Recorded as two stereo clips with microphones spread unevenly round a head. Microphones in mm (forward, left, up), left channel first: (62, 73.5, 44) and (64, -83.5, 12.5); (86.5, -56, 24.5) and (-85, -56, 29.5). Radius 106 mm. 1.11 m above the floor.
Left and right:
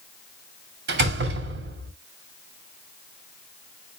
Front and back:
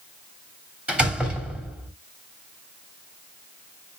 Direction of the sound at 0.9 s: 95° right.